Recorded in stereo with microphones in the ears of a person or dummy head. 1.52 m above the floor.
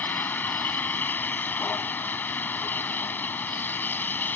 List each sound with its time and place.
0.0 s a vehicle: 10° left (ahead or behind)